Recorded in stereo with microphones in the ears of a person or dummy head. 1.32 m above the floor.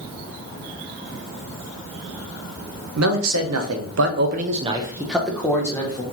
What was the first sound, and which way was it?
A man speaking, 70° right (ahead or behind).